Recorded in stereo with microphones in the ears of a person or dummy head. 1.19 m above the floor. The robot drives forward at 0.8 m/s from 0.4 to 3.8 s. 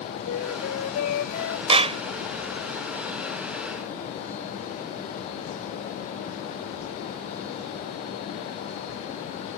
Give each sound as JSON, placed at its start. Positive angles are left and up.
{"t": 0.2, "sound": "a flute", "side_deg": 75}
{"t": 1.7, "sound": "a clap", "side_deg": -30}